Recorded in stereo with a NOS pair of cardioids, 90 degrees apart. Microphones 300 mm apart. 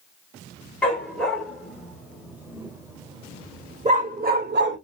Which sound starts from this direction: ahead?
A dog barking, at 0.8 s.